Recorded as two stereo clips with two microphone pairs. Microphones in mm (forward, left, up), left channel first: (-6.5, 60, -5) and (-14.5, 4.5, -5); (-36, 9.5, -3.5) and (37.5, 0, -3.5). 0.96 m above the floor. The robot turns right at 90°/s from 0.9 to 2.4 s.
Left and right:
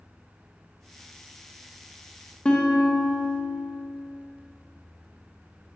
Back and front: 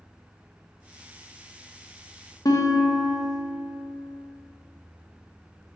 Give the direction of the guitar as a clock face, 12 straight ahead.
7 o'clock.